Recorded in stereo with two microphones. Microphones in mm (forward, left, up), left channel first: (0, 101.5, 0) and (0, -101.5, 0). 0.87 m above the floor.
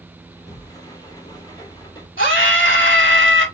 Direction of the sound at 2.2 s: 50° left (ahead or behind).